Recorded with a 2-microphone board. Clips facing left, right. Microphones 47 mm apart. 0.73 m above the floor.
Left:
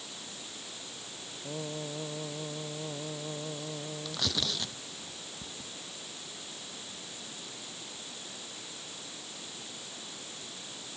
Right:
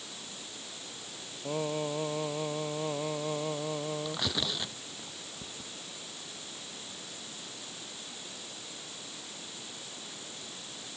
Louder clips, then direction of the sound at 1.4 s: Right 6 dB; 75° right (ahead or behind).